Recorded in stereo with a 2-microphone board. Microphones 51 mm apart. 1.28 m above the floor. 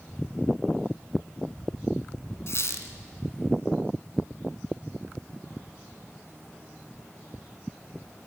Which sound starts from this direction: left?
A squeak, at 2.5 s.